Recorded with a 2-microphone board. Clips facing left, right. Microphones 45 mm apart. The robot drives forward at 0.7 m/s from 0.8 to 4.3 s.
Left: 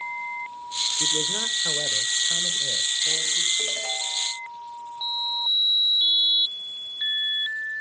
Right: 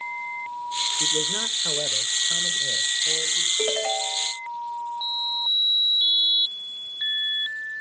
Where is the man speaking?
15° right (ahead or behind), 0.8 m; by 3.5 s 10° right (ahead or behind), 1.8 m.